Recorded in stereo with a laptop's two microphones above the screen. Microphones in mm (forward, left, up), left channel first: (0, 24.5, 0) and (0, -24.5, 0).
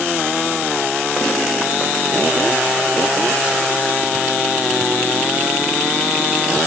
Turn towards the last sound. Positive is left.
No sound to turn to.